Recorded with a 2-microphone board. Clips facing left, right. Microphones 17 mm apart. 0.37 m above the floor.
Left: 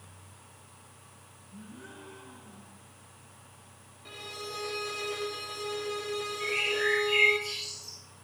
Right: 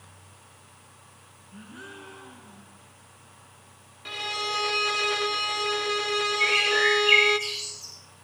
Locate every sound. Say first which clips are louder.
1.5 s a gasp: right 4 dB; 75° right (ahead or behind), 3 m
4.0 s a violin: right 11 dB; 40° right (ahead or behind), 0.6 m
6.4 s a bird: right 7 dB; 75° right (ahead or behind), 7.5 m